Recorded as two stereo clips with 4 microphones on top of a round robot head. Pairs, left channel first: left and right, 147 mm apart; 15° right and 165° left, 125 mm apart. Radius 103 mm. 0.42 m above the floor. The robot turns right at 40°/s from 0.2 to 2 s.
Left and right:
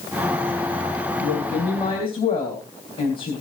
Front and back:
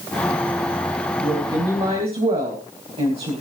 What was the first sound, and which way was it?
A woman speaking, 105° left.